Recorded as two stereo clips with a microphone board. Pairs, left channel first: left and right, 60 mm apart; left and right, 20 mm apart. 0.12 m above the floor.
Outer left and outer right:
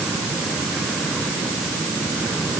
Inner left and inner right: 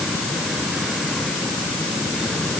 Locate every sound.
Only background noise.